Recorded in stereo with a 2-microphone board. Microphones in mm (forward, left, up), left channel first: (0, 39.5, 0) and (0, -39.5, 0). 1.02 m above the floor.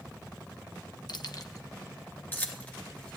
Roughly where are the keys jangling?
Left.